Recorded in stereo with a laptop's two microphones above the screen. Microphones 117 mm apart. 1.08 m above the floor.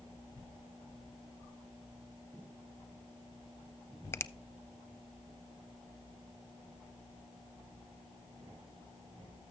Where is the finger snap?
20° left (ahead or behind), 0.6 m.